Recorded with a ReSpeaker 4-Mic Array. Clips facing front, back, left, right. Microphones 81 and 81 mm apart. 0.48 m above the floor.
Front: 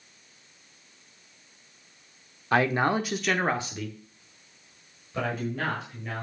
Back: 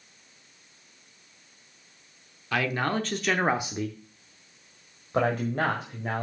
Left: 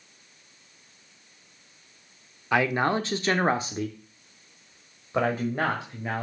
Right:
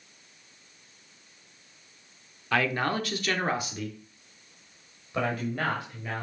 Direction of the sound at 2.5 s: 25° left.